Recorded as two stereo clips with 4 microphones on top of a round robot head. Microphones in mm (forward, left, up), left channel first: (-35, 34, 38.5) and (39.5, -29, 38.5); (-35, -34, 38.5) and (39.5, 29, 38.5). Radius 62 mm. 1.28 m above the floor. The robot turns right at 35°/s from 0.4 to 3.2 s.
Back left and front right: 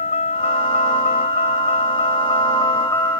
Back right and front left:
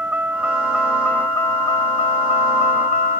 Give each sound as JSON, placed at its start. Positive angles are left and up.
{"t": 0.0, "sound": "a vehicle", "azimuth_deg": 120}